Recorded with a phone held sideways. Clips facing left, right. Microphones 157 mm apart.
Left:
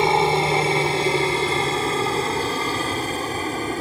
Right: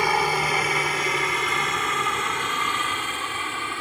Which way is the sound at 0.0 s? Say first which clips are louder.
Left 5 dB; 25° left (ahead or behind).